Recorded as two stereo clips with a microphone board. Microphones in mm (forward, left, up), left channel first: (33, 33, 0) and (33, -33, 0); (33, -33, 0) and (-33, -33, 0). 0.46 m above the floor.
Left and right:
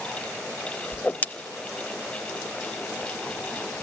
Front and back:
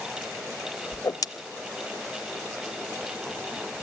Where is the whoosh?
25° left, 0.5 m.